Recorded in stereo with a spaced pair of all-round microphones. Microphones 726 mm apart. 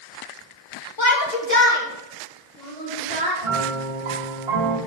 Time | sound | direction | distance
1.0 | a shout | 35° left (ahead or behind) | 1.7 m
3.4 | a piano | 40° right (ahead or behind) | 2 m